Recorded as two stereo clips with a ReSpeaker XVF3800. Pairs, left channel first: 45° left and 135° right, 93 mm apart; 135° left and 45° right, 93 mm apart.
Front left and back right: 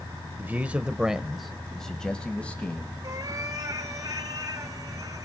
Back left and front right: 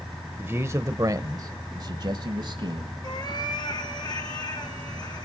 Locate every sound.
0.4 s a man speaking: 85° right, 0.9 m; by 2.9 s 25° right, 1.7 m
3.0 s a cat meowing: 175° left, 3.5 m